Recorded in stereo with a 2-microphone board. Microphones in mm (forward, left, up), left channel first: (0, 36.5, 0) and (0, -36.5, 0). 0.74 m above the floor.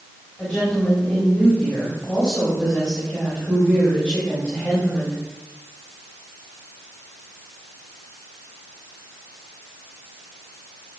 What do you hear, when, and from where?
0.4 s a woman speaking: 10° left (ahead or behind), 4.5 m